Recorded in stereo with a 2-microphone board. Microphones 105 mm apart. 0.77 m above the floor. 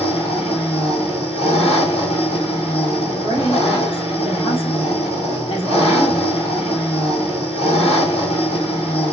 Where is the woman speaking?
60° left (ahead or behind), 1.8 m.